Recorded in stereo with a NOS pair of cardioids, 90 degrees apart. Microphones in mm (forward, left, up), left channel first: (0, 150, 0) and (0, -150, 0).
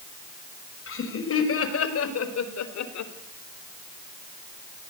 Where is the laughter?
45° left, 6 m; by 3.1 s 75° left, 3.5 m.